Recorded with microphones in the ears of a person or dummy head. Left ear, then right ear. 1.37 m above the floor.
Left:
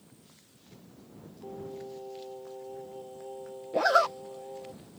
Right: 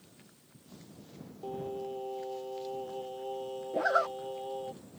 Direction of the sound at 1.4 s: 70° right (ahead or behind).